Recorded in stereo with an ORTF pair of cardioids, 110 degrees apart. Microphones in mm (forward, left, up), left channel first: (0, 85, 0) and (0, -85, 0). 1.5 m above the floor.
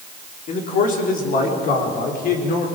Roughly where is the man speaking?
Ahead left.